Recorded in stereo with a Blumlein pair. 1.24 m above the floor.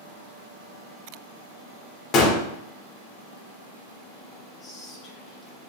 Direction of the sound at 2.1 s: 30° left.